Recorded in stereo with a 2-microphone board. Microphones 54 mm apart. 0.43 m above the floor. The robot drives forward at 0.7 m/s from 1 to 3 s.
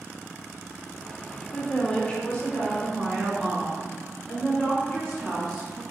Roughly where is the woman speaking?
Left.